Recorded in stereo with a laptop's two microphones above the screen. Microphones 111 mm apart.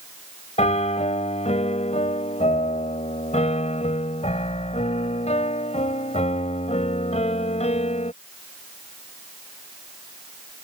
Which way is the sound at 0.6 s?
85° left.